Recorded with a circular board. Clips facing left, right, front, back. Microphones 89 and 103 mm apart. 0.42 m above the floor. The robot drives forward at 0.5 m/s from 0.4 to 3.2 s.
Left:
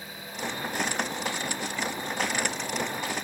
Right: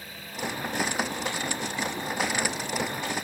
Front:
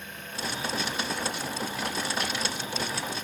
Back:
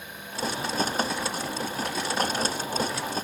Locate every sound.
Only background noise.